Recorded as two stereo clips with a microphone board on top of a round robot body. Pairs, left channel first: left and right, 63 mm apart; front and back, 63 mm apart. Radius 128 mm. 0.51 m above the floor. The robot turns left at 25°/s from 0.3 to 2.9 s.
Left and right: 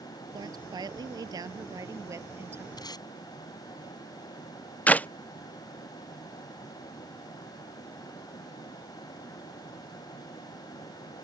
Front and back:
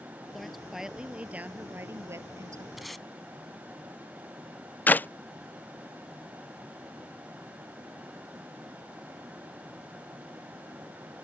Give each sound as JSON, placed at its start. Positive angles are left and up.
{"t": 0.3, "sound": "a woman speaking", "azimuth_deg": -85}
{"t": 2.8, "sound": "tape being pulled", "azimuth_deg": 90}
{"t": 4.9, "sound": "a clap", "azimuth_deg": 40}